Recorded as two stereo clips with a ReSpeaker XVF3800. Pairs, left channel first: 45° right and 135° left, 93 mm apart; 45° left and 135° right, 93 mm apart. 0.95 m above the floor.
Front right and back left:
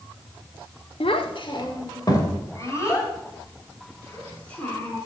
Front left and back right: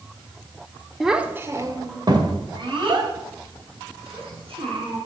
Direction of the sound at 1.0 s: 45° right.